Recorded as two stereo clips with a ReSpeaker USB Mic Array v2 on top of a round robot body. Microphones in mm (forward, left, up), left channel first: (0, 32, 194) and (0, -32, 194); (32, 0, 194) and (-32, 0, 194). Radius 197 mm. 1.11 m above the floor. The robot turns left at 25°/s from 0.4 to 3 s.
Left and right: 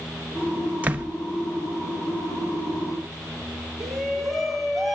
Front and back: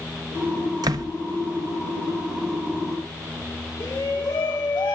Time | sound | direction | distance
0.8 | a door slam | 155° right | 0.6 m
3.8 | a shout | straight ahead | 4.5 m